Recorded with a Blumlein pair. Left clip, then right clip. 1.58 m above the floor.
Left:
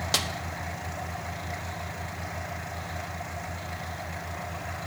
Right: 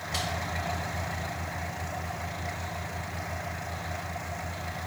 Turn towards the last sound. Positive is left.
turn(degrees=45)